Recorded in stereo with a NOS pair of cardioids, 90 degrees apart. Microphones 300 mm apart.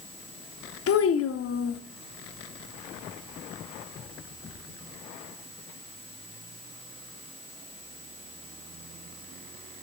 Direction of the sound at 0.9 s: 50° left.